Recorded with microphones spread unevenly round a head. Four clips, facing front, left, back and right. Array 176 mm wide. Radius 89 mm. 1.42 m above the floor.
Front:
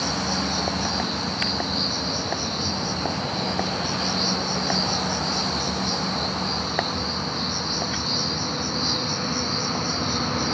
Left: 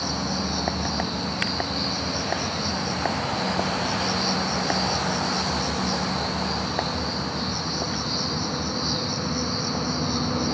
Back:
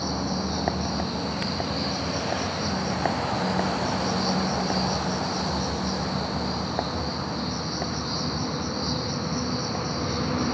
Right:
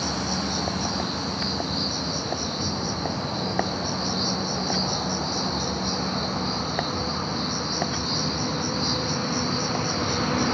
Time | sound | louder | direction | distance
0.0 | an insect | even, front 2 dB | 100° right | 3.5 m